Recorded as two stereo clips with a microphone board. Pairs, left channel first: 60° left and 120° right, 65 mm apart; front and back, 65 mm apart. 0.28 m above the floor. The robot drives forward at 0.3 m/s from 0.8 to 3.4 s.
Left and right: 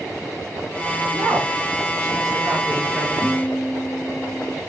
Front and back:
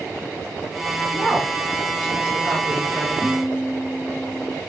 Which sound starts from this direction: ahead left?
A guitar, at 3.2 s.